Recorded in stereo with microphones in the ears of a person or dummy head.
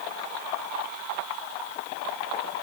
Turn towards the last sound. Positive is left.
No sound to turn to.